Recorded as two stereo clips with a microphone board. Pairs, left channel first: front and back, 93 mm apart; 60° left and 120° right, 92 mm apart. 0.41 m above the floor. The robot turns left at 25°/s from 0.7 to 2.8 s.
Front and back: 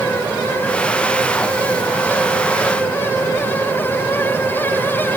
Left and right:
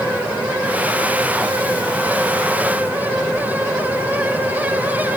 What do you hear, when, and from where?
Only background noise.